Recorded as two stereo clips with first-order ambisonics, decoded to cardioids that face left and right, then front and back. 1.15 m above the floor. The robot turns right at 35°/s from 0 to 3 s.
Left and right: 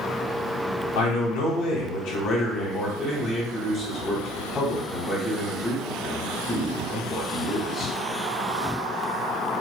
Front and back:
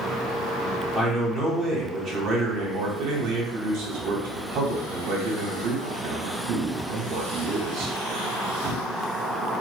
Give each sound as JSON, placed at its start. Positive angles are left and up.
{"t": 0.9, "sound": "a man speaking", "azimuth_deg": 90, "distance_m": 1.3}